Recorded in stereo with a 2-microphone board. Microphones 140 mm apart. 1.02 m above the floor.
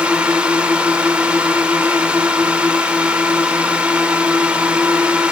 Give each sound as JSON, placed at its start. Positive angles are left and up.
{"t": 0.0, "sound": "a drone", "side_deg": -5}